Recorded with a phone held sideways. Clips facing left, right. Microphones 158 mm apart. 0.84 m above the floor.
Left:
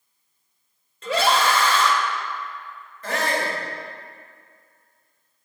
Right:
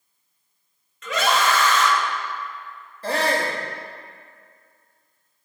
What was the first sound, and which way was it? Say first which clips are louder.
A scream: left 1 dB; 30° left (ahead or behind).